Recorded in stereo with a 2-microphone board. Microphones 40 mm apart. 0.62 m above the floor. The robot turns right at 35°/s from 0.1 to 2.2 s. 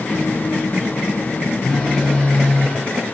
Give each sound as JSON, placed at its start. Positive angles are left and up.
{"t": 1.6, "sound": "a phone buzzing", "side_deg": 5, "distance_m": 0.7}